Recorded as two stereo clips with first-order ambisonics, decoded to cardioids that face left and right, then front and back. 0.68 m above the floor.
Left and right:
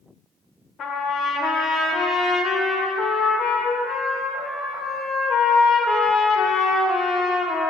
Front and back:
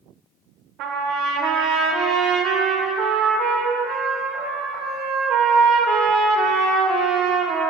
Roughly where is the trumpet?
Behind left.